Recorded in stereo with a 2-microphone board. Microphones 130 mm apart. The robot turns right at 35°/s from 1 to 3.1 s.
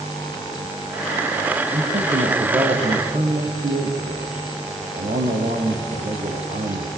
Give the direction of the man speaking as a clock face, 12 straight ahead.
4 o'clock.